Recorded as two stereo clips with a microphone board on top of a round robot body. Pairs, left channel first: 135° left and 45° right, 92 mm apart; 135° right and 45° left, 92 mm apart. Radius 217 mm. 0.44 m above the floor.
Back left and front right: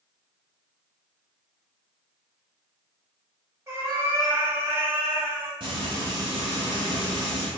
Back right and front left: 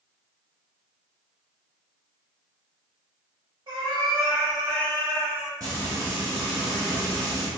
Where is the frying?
10° right, 1.0 m.